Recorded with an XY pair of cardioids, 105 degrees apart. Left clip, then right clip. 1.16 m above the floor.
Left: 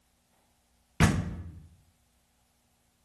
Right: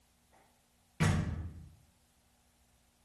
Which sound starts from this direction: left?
A door slam, at 1.0 s.